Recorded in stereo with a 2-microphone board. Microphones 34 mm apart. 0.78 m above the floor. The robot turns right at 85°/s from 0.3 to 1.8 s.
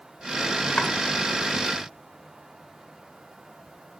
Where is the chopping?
60° left (ahead or behind), 1.4 m; by 0.9 s 50° left (ahead or behind), 1.4 m.